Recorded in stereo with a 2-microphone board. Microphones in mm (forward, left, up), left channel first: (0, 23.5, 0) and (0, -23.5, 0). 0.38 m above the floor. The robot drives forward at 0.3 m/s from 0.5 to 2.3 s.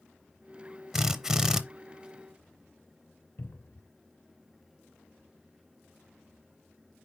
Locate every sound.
0.9 s a drill: 5° right (ahead or behind), 0.7 m; by 1.6 s 10° right (ahead or behind), 0.5 m
3.4 s a cupboard door: 50° left (ahead or behind), 0.6 m